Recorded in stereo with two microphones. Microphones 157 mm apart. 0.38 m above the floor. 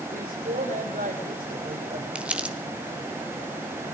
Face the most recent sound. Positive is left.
turn(degrees=-10)  # may be behind; listen again after turning